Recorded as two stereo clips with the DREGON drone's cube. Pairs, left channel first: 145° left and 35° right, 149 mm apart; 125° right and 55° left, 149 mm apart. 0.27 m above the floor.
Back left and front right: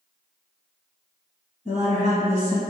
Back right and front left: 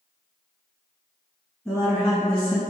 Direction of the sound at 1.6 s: 155° left.